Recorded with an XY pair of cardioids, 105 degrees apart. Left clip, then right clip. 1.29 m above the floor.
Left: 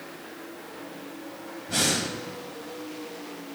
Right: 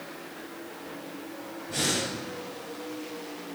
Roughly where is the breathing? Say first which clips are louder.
Left 3 dB; ahead left.